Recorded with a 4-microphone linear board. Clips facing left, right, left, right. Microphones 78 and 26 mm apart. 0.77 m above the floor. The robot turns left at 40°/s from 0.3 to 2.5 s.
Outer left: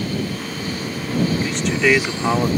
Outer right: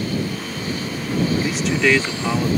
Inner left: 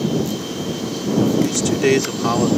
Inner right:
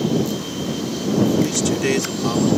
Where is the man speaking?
165° right; by 2.5 s 150° left.